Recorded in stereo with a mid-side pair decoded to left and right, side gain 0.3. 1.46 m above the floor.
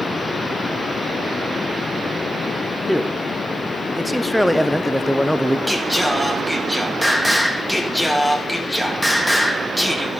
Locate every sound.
2.9 s a man speaking: 5° left, 0.7 m
5.7 s singing: 5° left, 1.6 m